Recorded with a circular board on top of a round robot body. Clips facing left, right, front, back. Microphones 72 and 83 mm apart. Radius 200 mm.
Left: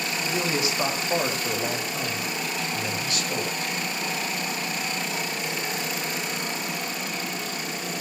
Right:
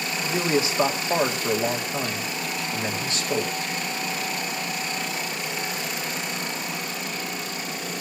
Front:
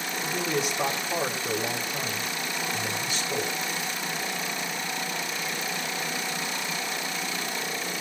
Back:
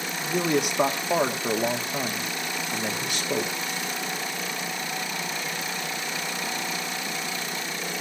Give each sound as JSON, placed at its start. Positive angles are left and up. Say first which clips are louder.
{"t": 0.2, "sound": "a man speaking", "louder": "right 4 dB, back 5 dB", "azimuth_deg": -150, "distance_m": 3.0}